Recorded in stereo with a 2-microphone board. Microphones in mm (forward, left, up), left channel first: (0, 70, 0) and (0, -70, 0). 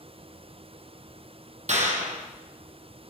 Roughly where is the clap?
Right.